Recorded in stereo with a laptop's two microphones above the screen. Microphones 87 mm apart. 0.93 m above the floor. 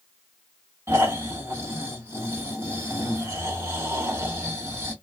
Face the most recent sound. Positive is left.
turn(degrees=-30)  # may be behind; listen again after turning